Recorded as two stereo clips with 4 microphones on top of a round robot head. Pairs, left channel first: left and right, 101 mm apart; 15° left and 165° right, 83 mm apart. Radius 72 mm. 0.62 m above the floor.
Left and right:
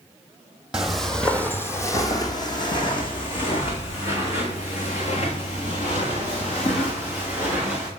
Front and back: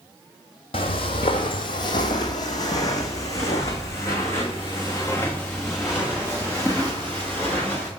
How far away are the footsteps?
About 1.0 m.